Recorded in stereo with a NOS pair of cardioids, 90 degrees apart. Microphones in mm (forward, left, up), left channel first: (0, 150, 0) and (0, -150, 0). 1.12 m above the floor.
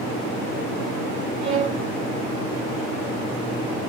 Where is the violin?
65° right, 2.5 m.